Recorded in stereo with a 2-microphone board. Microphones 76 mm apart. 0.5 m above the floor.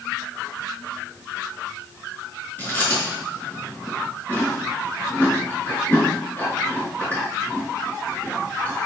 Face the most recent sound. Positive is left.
turn(degrees=25)  # may be behind; listen again after turning